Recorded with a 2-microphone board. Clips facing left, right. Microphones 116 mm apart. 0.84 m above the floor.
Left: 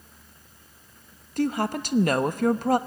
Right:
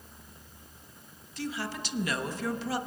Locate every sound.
1.4 s a woman speaking: 50° left (ahead or behind), 0.8 m